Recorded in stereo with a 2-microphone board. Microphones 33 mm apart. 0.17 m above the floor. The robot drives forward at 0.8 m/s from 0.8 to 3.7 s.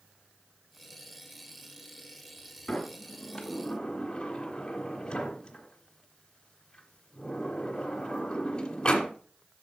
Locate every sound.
2.7 s a sliding door: 25° left (ahead or behind), 1.6 m; by 9.1 s 20° left (ahead or behind), 1.7 m